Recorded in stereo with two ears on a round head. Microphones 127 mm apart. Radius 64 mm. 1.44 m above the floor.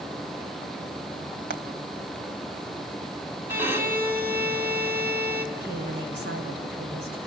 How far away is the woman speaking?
About 7 m.